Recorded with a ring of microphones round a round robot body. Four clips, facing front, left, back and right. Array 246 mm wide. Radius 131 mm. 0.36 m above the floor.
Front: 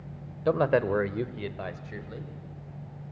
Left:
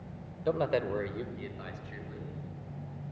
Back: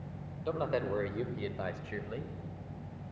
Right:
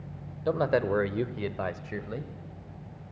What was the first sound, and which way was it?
A man speaking, 5° right.